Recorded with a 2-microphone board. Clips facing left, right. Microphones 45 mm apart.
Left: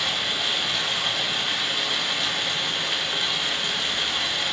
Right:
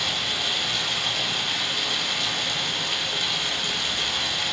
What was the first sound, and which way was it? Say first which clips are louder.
Running water: left 1 dB; 20° left (ahead or behind).